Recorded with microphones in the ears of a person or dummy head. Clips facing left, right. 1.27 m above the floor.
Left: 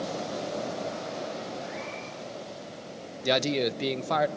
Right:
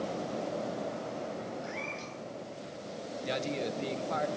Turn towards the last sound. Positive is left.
turn(degrees=75)  # may be behind; listen again after turning